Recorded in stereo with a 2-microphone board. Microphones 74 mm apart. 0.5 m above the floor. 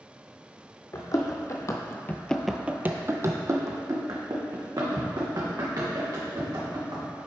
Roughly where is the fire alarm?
I don't hear a fire alarm.